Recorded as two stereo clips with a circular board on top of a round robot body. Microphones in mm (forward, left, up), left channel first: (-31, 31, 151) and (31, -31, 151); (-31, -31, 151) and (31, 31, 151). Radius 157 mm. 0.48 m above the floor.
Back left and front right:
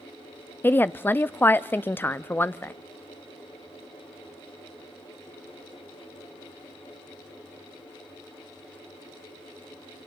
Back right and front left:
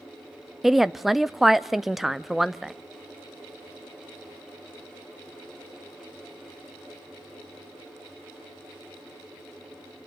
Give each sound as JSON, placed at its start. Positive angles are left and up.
{"t": 0.6, "sound": "a woman speaking", "azimuth_deg": 130, "distance_m": 0.7}